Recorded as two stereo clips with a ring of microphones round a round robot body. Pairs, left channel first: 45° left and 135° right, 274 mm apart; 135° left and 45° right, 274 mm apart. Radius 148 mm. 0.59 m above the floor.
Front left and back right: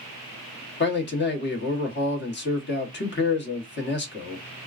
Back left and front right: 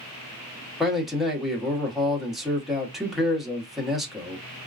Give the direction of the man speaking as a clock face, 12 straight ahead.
11 o'clock.